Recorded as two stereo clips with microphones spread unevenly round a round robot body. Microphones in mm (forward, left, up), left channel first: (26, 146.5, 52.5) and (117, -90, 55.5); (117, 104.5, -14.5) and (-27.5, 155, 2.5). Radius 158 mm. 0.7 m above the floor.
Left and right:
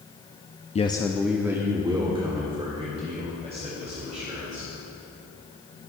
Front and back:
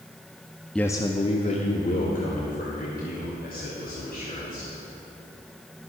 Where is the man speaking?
60° left, 0.7 m; by 4.7 s 5° right, 5 m.